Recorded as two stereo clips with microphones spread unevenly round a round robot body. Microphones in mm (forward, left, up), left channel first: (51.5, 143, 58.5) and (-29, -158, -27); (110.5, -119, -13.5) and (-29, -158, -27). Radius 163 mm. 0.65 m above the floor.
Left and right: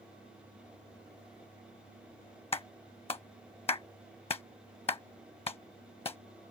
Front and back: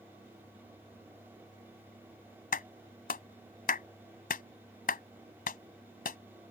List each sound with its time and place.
2.5 s a clap: straight ahead